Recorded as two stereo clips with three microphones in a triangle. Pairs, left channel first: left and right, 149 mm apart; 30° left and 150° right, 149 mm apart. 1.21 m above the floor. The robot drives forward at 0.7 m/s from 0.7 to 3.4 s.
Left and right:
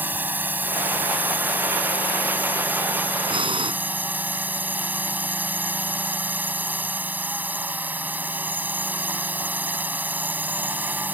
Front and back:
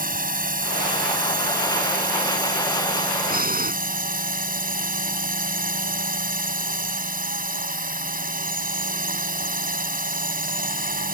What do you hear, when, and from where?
0.0 s a drone: 170° right
3.3 s breathing: 145° right